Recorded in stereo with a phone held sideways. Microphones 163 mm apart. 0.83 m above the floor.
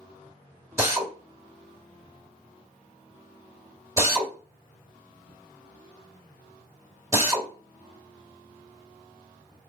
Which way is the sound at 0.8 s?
15° right (ahead or behind).